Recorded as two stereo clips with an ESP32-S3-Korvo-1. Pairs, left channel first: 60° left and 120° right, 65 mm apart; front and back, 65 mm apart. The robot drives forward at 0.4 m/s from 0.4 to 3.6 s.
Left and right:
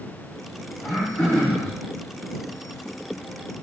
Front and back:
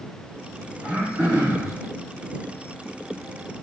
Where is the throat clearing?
130° left, 4 m; by 1.7 s 135° left, 4 m.